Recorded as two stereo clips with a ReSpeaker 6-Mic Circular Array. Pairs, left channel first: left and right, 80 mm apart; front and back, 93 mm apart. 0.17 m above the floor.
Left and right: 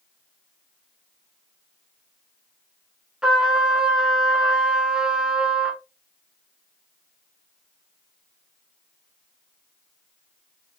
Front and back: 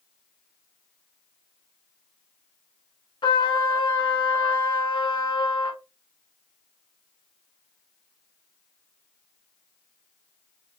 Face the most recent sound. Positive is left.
turn(degrees=-10)